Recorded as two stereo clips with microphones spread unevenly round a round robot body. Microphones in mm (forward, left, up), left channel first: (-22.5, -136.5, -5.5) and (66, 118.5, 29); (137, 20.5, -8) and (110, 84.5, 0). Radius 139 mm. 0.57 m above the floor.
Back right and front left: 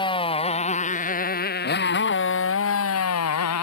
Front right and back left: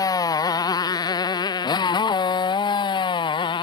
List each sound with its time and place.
0.0 s a motorcycle: 35° right; by 3.6 s 80° right